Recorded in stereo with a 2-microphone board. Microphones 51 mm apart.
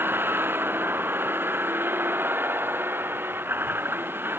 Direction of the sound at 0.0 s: 45° right (ahead or behind).